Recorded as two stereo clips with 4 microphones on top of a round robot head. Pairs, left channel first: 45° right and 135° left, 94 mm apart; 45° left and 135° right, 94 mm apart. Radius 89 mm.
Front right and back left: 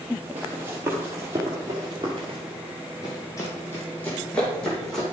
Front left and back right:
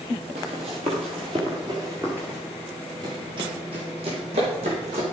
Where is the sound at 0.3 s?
155° right, 2.5 m; by 2.4 s 140° left, 1.3 m.